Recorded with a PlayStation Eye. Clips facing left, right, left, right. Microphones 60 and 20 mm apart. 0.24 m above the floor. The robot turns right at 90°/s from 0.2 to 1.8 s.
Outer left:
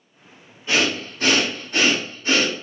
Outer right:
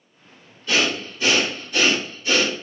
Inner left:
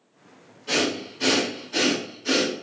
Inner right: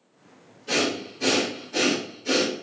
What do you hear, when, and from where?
0.7 s breathing: 25° left (ahead or behind), 1.0 m; by 2.5 s 40° left (ahead or behind), 1.0 m